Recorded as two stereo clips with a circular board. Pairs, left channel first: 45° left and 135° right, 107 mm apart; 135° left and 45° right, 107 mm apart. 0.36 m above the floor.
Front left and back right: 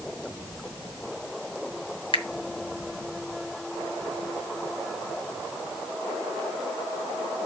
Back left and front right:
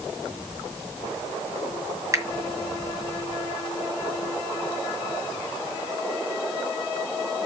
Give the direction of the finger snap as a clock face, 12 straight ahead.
12 o'clock.